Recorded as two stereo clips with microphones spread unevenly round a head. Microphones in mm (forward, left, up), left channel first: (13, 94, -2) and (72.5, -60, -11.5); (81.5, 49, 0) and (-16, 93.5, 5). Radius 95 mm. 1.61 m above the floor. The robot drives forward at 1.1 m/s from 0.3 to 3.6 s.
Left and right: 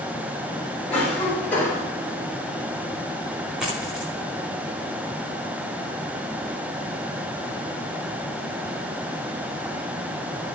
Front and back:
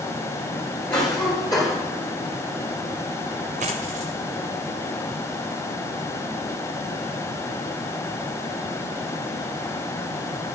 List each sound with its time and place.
0.9 s a cough: 30° left, 6.5 m; by 1.8 s 35° left, 5.5 m
3.6 s a dropped coin: 155° right, 7 m